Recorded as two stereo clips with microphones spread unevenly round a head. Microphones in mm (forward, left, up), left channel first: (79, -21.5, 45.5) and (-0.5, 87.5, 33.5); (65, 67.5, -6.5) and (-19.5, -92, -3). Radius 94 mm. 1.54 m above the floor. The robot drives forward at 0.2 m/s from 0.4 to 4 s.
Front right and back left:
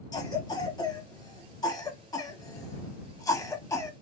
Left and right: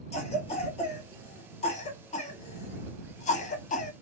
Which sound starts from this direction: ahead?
A cough, at 0.1 s.